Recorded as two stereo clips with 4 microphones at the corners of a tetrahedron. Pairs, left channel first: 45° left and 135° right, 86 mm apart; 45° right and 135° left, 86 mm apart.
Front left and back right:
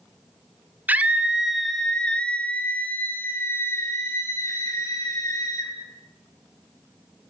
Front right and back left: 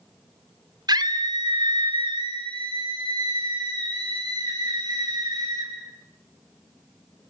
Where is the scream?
160° left, 1.8 m; by 5.7 s 95° left, 6 m.